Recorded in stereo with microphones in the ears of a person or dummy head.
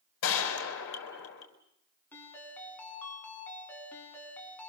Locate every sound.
0.2 s a gunshot: 85° left, 4 m
2.1 s a ringtone: 20° left (ahead or behind), 6 m